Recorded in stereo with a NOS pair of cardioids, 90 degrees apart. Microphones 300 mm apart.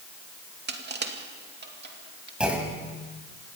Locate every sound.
0.7 s crushing: 35° right, 2.5 m
2.4 s a clunk: 5° right, 5 m